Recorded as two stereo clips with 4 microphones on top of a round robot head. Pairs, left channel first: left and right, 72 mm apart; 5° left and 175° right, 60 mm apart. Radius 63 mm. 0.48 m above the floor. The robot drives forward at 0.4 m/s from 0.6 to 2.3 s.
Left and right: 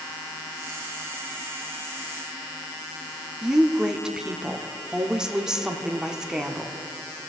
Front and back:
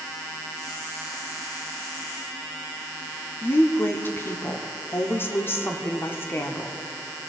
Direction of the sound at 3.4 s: 15° right.